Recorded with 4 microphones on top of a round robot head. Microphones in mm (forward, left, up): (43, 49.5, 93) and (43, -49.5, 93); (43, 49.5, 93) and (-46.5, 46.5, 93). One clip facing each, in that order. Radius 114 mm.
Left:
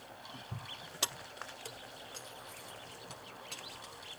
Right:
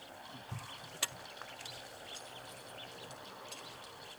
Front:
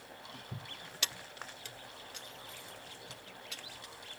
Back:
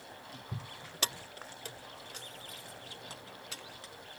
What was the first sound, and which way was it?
Keys jangling, 145° left.